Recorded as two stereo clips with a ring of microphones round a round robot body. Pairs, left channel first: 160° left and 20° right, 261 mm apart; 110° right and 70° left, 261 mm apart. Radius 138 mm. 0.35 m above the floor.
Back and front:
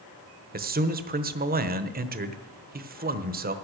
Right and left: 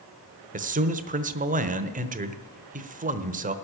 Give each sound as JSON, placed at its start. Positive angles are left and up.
{"t": 0.5, "sound": "a man speaking", "azimuth_deg": 20, "distance_m": 1.1}